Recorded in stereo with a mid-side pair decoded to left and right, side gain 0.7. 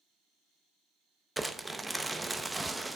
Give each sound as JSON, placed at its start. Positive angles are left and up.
{"t": 1.4, "sound": "crumpling", "azimuth_deg": -10, "distance_m": 0.5}